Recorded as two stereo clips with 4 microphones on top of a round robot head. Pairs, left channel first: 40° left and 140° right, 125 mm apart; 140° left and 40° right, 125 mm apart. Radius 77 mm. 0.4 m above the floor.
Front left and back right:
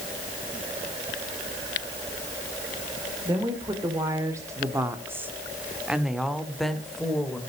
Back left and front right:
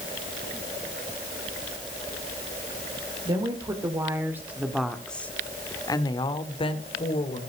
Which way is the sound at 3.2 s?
85° right.